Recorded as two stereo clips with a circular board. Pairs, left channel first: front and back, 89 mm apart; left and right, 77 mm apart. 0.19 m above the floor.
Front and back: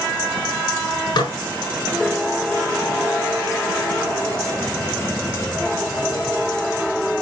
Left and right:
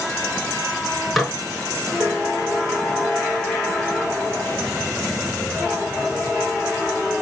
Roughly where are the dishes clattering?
Ahead.